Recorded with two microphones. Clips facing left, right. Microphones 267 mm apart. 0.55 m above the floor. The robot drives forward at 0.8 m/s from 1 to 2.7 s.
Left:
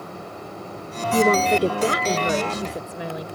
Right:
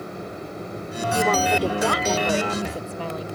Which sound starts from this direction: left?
A woman speaking, at 1.1 s.